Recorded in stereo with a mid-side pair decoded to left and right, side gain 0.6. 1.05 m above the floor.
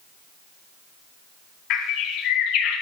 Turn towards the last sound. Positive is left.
turn(degrees=70)